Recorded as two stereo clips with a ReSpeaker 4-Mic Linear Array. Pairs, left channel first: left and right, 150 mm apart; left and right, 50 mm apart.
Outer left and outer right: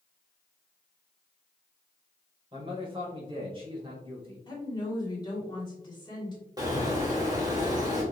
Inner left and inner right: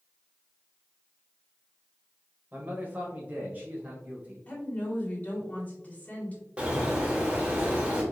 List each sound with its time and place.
2.5 s a man speaking: 35° right (ahead or behind), 1.6 m
4.5 s a woman speaking: 30° left (ahead or behind), 2.0 m
6.6 s a bird: 25° right (ahead or behind), 1.4 m